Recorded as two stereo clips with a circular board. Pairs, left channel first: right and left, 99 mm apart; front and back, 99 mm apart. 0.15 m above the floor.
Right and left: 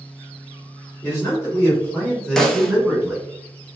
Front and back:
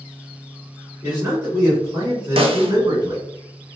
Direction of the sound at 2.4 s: 175° right.